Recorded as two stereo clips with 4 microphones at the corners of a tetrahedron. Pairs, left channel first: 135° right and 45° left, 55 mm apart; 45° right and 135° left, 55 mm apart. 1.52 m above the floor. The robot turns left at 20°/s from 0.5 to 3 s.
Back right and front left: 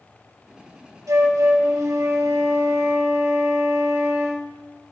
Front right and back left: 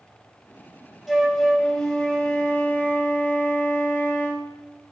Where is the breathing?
I don't hear breathing.